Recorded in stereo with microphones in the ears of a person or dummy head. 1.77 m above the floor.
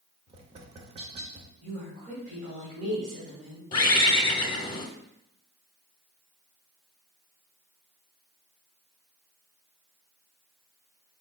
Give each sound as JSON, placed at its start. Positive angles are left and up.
{"t": 0.3, "sound": "tapping", "side_deg": -35, "distance_m": 0.6}
{"t": 1.6, "sound": "a woman speaking", "side_deg": -55, "distance_m": 2.0}
{"t": 3.7, "sound": "a bird", "side_deg": 30, "distance_m": 0.8}